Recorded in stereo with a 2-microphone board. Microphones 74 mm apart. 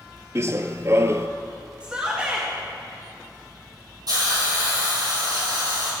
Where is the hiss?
60° right (ahead or behind), 5 m.